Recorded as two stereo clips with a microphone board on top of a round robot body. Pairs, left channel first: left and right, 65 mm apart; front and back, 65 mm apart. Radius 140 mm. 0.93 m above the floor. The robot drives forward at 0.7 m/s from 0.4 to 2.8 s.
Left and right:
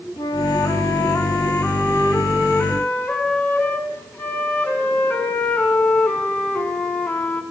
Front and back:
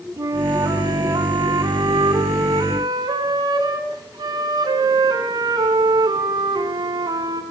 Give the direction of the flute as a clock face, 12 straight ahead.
8 o'clock.